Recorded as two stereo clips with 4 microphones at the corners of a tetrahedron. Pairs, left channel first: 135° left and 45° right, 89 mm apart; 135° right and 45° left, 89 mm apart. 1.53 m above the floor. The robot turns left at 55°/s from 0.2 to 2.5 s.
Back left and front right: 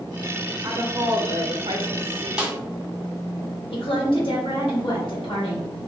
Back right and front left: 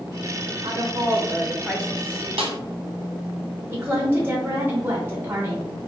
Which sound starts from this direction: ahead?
A woman speaking, at 0.6 s.